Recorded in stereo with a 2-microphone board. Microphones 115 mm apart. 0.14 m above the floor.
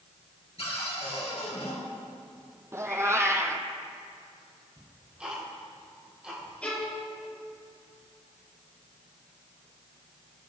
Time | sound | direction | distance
0.6 | a cupboard door | 60° left (ahead or behind) | 3 m
2.7 | a cat meowing | 25° right (ahead or behind) | 0.9 m
4.8 | ticking | 10° right (ahead or behind) | 3 m
6.6 | a violin | 10° left (ahead or behind) | 3.5 m